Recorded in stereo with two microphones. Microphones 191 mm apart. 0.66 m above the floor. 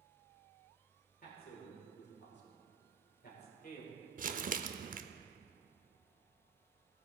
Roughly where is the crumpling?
Right.